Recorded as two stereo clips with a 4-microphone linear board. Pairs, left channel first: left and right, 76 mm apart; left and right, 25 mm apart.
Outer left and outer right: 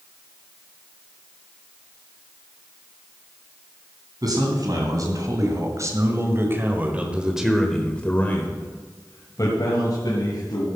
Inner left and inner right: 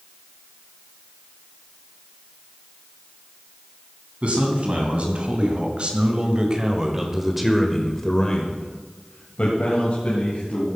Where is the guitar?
No guitar in this recording.